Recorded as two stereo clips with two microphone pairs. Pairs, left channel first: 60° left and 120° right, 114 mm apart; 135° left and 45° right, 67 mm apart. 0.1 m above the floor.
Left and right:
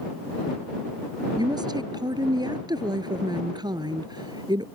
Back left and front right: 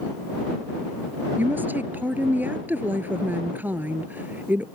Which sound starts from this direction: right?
A woman speaking, at 1.4 s.